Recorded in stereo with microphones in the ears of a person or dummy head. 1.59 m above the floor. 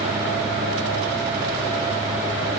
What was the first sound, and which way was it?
Only background noise.